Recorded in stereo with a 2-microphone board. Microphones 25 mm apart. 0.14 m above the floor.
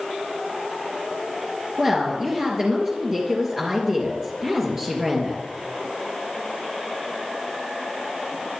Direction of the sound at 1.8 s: 30° right (ahead or behind).